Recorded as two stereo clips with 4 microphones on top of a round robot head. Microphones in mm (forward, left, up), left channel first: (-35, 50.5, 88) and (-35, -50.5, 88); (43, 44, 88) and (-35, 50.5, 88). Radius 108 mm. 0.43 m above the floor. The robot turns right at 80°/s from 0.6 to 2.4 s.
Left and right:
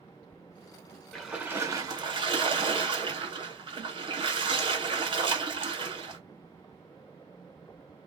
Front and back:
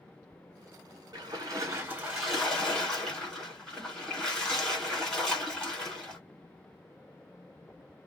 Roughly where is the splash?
Behind.